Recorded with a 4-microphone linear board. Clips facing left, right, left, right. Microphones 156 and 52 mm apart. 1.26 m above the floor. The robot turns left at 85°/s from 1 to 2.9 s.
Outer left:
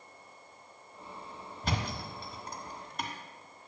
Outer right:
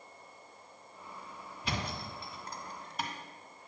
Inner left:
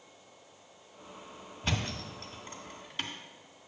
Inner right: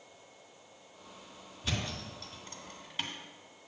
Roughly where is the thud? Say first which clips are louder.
Outer left 2 dB, inner left 3 dB; left.